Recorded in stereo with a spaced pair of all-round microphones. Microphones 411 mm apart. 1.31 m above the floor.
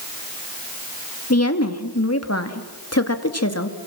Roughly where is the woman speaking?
Left.